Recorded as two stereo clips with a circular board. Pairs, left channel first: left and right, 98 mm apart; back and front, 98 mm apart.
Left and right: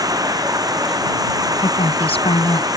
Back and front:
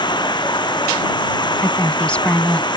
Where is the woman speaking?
100° left.